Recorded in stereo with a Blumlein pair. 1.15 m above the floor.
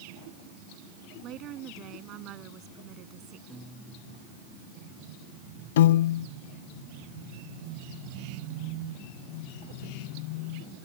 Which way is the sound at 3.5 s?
5° right.